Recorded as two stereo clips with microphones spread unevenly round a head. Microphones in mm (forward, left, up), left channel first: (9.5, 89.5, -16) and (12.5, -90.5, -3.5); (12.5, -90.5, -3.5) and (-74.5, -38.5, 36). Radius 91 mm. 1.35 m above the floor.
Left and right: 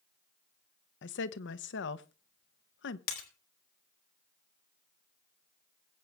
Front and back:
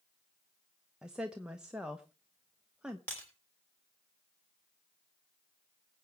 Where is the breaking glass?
50° left, 3 m.